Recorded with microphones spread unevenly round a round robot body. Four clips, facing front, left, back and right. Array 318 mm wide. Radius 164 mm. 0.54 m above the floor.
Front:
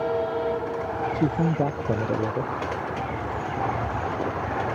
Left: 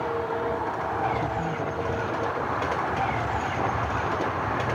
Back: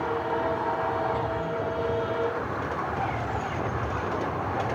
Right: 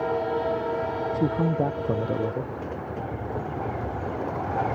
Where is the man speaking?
30° right.